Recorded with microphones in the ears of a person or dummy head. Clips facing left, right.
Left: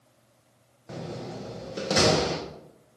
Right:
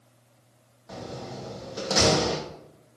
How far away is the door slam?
About 0.9 m.